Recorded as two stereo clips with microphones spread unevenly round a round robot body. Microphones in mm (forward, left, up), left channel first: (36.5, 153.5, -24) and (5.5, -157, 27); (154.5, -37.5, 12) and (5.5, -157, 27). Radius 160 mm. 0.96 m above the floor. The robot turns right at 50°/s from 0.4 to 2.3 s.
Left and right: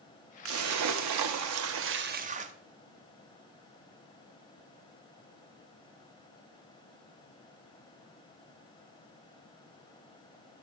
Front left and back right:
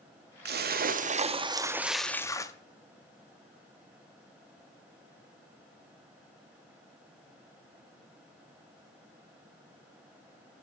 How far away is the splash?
About 0.6 m.